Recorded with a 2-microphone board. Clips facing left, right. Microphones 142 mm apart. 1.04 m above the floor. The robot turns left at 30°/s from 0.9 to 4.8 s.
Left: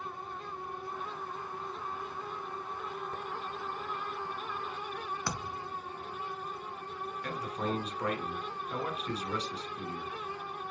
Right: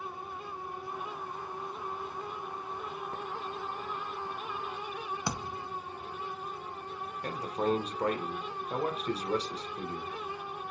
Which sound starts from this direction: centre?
A thud, at 5.3 s.